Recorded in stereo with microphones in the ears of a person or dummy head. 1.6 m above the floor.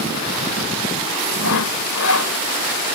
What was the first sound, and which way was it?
Sawing, 80° left.